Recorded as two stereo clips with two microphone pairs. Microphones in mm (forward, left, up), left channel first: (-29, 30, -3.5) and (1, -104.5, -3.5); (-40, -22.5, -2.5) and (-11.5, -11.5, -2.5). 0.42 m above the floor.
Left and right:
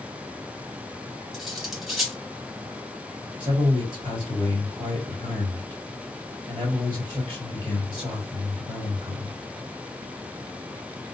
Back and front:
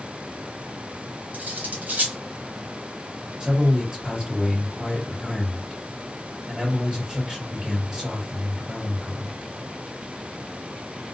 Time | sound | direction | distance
1.3 | cutlery clinking | 10° left | 1.1 m
3.4 | a man speaking | 45° right | 2 m